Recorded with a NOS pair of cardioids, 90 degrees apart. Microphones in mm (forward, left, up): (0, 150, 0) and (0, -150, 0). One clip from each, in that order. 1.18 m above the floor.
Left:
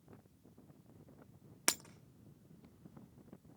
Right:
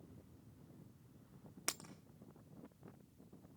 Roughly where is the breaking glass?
Ahead left.